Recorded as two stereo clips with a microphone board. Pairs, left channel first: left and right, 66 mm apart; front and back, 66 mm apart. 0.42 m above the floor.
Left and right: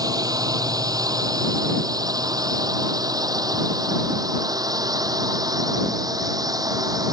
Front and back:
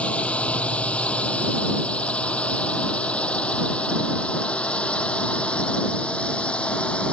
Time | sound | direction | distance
0.0 | a drone | 70° right | ?